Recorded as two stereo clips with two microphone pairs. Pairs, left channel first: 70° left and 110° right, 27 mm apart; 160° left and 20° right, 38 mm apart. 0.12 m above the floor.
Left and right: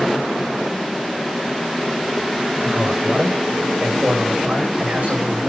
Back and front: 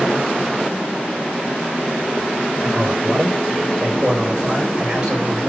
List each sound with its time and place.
2.6 s a man speaking: 95° right, 10 m